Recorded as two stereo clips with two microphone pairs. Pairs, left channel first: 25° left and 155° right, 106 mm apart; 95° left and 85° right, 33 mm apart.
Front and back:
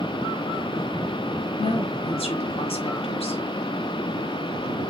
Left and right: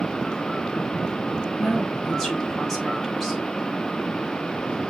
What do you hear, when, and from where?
1.6 s a woman speaking: 5° left, 5.5 m